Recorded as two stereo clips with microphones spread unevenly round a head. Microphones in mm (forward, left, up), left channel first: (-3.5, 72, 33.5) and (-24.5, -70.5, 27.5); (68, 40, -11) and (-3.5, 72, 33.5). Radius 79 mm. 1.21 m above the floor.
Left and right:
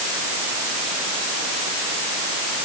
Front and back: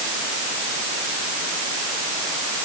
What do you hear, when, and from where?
Only background noise.